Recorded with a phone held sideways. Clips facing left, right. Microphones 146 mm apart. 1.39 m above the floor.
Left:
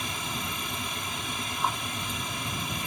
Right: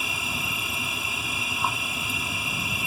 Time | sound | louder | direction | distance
0.0 | an insect | right 1 dB | 5° right (ahead or behind) | ?